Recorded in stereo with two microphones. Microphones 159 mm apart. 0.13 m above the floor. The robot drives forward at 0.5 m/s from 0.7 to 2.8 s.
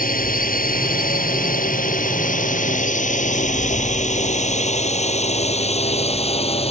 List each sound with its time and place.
0.0 s a drone: 60° left (ahead or behind); by 6.7 s 40° left (ahead or behind)